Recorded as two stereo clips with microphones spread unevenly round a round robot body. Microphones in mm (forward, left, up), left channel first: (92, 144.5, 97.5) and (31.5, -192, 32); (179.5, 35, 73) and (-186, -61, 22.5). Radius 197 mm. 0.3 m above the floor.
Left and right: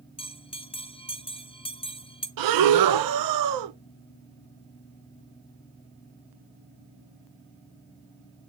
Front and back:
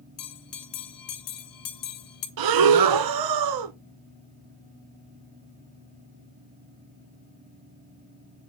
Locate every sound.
0.2 s a bell: straight ahead, 1.8 m
2.4 s breathing: 130° right, 1.1 m